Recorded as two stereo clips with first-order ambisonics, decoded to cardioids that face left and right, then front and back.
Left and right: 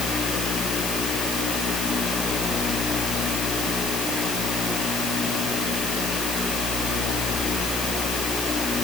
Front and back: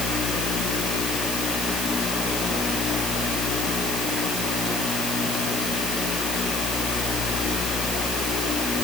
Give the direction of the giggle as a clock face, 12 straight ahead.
I don't hear a giggle.